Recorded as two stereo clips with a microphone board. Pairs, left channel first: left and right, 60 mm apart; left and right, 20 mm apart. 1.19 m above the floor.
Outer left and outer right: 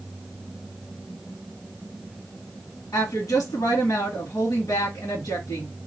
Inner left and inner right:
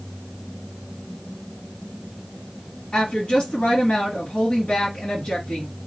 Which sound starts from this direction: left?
A woman speaking, at 2.9 s.